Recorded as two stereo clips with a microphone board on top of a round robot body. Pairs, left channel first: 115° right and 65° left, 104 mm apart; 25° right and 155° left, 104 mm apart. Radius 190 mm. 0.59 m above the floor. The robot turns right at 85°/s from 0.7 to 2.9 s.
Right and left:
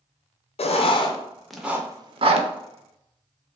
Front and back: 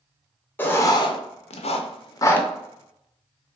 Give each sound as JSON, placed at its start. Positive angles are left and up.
{"t": 0.6, "sound": "writing", "azimuth_deg": -95, "distance_m": 0.5}